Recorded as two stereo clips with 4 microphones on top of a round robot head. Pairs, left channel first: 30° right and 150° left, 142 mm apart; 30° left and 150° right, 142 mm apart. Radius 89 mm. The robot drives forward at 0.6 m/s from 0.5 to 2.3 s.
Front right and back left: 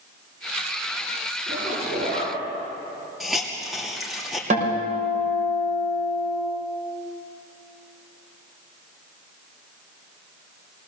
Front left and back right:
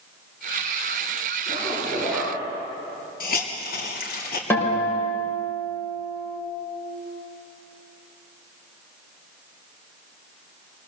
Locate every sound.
1.5 s a zipper: 130° left, 8.5 m
3.2 s a hiss: 60° left, 2.5 m
4.5 s a guitar: 110° left, 6 m